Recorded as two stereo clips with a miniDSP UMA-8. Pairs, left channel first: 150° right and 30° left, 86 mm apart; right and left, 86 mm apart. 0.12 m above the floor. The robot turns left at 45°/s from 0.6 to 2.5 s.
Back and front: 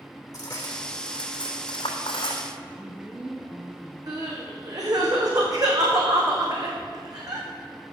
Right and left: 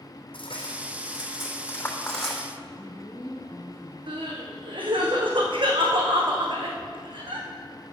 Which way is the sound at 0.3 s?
100° right.